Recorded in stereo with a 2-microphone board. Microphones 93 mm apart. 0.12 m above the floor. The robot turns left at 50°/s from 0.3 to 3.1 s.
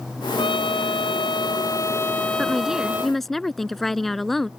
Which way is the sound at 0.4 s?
110° left.